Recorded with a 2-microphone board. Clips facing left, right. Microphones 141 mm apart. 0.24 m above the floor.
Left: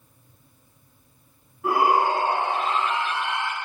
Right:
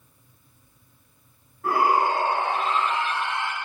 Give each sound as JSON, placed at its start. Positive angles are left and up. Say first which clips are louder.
{"t": 1.6, "sound": "a shout", "louder": "left 1 dB", "side_deg": 15, "distance_m": 2.5}